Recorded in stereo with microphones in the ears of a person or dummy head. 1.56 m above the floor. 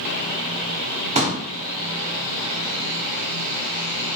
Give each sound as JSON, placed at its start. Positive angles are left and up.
{"t": 1.1, "sound": "a pop", "side_deg": -35, "distance_m": 0.9}